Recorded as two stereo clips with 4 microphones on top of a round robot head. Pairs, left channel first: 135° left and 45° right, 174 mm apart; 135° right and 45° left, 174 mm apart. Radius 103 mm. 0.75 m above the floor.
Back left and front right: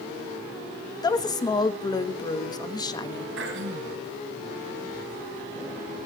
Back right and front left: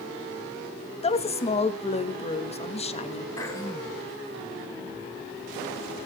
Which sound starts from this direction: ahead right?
Throat clearing, at 3.4 s.